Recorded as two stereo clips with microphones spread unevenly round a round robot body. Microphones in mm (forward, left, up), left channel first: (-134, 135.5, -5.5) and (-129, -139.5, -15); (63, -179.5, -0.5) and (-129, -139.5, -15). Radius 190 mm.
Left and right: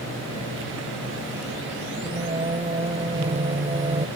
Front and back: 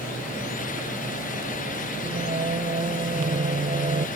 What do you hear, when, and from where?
2.0 s singing: 150° right